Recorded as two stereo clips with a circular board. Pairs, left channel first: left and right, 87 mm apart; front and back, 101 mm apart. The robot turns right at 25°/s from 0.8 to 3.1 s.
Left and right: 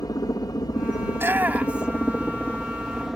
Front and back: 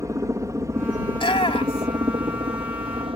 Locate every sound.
0.0 s a helicopter: 125° left; by 3.2 s straight behind
1.1 s a shout: 30° right; by 2.1 s 5° right